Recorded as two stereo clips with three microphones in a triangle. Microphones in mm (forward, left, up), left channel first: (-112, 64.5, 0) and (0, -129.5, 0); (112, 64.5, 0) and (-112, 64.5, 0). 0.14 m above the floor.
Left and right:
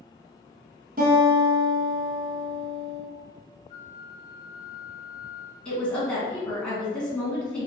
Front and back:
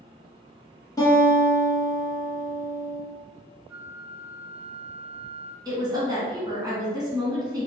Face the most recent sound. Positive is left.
turn(degrees=-165)